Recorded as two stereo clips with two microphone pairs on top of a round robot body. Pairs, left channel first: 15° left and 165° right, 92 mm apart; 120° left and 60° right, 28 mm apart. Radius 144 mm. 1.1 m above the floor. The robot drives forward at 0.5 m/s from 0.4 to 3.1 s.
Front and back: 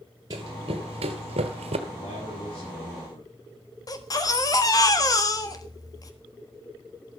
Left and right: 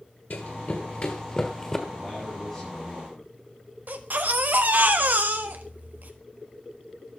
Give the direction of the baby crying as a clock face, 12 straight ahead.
1 o'clock.